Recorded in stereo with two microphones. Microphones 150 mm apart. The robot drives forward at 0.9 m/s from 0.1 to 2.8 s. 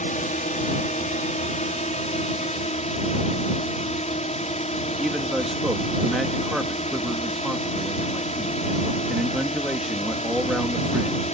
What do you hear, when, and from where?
0.0 s a drone: 55° left (ahead or behind); by 11.3 s 45° left (ahead or behind)
5.0 s a man speaking: 5° right (ahead or behind)